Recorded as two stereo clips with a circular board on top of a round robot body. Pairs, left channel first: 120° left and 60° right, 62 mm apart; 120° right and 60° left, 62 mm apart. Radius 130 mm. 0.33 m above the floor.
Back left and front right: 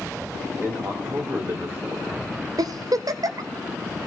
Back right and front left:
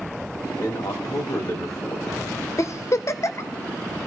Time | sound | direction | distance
0.5 | a man speaking | 105° right | 2 m
2.6 | a giggle | 80° right | 0.5 m